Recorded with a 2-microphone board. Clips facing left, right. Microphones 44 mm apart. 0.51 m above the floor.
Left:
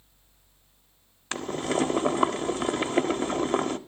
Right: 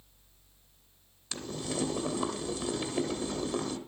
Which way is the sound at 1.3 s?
50° left (ahead or behind).